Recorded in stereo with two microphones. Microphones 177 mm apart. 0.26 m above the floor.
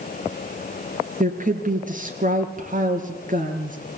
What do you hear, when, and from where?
1.2 s a woman speaking: 50° right (ahead or behind), 4 m